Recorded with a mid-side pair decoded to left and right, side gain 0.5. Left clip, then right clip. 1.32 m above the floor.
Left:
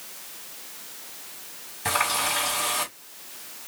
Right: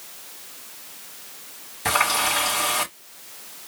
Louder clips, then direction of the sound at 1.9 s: Right 4 dB; 25° right.